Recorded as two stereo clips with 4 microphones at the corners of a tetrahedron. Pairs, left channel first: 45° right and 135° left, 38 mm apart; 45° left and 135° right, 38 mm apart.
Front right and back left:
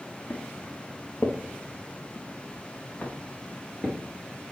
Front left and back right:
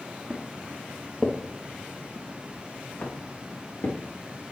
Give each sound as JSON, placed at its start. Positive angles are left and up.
{"t": 0.3, "sound": "footsteps", "azimuth_deg": -70, "distance_m": 2.0}